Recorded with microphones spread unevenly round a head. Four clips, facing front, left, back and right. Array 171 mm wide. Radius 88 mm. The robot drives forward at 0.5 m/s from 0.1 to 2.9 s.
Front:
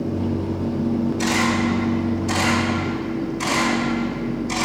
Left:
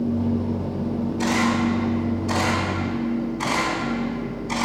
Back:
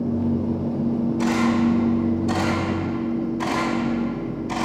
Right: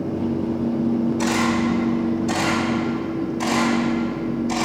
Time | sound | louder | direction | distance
1.2 | a camera shutter | right 1 dB, back 1 dB | 110° right | 3 m